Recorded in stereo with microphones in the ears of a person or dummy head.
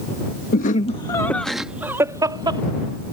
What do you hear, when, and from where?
0.5 s laughter: 50° left (ahead or behind); by 2.6 s 25° right (ahead or behind)